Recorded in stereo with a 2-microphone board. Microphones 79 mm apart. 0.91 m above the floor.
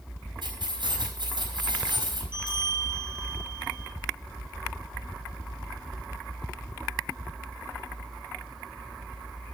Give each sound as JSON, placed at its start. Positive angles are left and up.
{"t": 0.4, "sound": "keys jangling", "side_deg": -85, "distance_m": 4.5}
{"t": 2.3, "sound": "a bell", "side_deg": 75, "distance_m": 7.0}